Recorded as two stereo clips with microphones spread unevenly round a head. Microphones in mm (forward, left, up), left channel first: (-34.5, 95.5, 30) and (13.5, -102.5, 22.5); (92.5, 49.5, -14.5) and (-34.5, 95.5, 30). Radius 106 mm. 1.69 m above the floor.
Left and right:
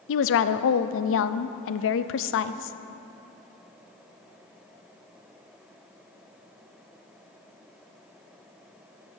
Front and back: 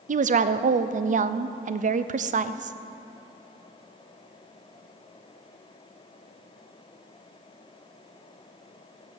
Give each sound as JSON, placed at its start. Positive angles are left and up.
{"t": 0.1, "sound": "a woman speaking", "azimuth_deg": 130, "distance_m": 0.5}